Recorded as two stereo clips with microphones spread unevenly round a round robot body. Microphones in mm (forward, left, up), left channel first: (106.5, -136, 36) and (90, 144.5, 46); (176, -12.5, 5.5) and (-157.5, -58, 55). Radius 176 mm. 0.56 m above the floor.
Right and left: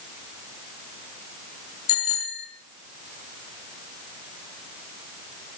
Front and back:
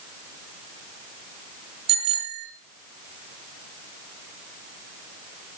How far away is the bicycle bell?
About 4.5 m.